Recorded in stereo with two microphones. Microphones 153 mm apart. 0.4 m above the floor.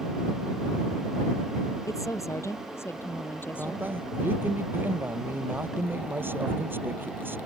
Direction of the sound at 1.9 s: 20° left (ahead or behind).